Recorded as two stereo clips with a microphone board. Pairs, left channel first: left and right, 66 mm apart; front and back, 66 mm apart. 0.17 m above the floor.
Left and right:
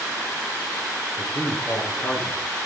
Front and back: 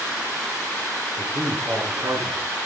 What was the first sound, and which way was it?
A man speaking, 160° left.